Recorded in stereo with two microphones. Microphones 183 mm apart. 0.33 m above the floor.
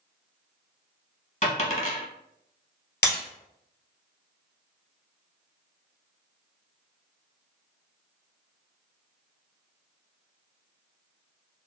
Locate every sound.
1.4 s a dropped coin: 45° left (ahead or behind), 1.0 m
3.0 s breaking glass: 80° left, 1.4 m